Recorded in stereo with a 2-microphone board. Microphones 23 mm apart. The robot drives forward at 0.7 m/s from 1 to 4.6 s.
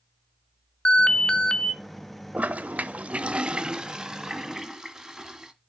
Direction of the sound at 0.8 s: 40° left (ahead or behind).